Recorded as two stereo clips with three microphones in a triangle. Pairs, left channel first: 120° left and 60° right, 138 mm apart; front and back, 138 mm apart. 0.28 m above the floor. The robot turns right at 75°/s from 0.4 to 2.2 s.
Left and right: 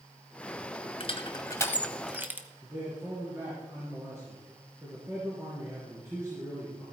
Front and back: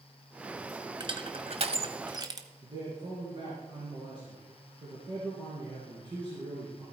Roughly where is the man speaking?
Behind right.